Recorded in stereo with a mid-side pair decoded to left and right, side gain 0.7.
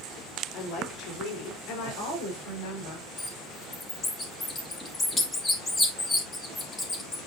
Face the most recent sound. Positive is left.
turn(degrees=20)